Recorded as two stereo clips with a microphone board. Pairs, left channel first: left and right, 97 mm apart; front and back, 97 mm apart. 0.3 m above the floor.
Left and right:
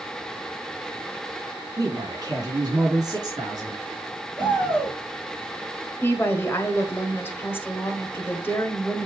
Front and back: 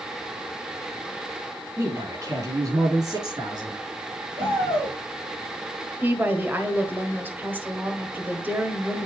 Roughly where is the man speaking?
Behind right.